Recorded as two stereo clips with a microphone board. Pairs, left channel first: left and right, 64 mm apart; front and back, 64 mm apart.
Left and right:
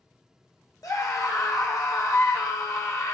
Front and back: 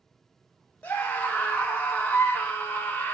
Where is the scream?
60° left, 2 m.